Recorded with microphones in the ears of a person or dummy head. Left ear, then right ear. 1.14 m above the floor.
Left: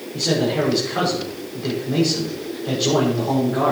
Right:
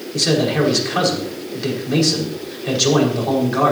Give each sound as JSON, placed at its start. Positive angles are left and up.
{"t": 0.1, "sound": "a man speaking", "side_deg": -65, "distance_m": 5.5}